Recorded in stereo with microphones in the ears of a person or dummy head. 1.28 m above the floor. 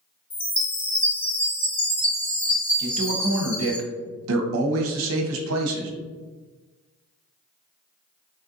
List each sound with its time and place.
0.3 s a chime: 10° left (ahead or behind), 1.4 m
2.8 s a man speaking: 80° right, 0.7 m